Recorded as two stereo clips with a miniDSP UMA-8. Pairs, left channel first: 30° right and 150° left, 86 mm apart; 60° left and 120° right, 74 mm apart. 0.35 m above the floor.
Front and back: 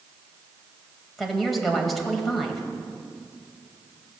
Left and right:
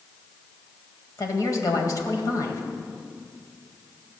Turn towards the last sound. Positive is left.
turn(degrees=60)